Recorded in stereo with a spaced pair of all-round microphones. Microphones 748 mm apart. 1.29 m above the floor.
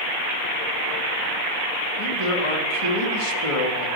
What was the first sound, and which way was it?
A man speaking, 45° left (ahead or behind).